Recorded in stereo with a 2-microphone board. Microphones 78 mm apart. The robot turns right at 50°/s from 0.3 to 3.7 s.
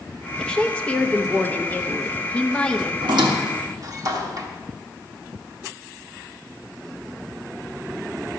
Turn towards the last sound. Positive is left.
turn(degrees=-50)  # may be behind; listen again after turning